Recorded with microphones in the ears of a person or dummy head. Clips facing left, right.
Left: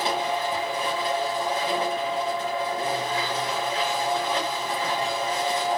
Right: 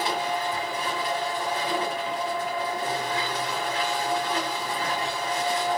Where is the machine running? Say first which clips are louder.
Left 2 dB; 25° left (ahead or behind), 2.5 m.